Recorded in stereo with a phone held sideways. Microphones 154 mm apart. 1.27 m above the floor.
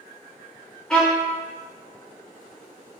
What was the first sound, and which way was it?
A violin, 5° left (ahead or behind).